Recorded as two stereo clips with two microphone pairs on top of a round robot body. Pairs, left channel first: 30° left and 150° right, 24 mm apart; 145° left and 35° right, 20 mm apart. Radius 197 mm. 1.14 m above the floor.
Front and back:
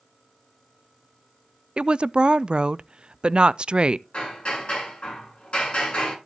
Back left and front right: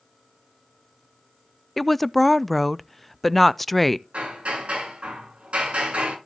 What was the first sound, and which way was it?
A woman speaking, 140° right.